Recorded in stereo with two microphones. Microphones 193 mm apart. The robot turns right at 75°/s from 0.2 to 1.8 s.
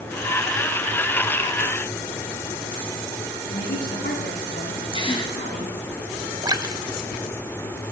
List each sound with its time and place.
3.5 s a woman speaking: 75° left (ahead or behind), 8.5 m
4.9 s a gasp: 25° left (ahead or behind), 1.9 m
6.4 s a splash: 20° right (ahead or behind), 0.9 m